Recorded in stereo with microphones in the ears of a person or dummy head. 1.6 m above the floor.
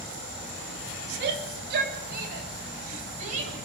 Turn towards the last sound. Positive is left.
turn(degrees=-35)  # may be behind; listen again after turning